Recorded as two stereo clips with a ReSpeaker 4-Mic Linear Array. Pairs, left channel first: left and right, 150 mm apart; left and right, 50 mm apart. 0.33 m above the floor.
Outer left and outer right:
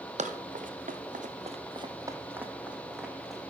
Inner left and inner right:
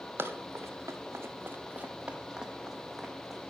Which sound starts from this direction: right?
Running footsteps, at 0.2 s.